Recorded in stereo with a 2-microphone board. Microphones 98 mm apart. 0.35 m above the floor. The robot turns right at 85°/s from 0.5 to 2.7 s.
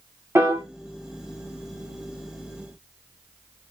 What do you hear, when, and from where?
0.3 s a piano: 25° right (ahead or behind), 0.9 m; by 0.6 s 35° right (ahead or behind), 0.9 m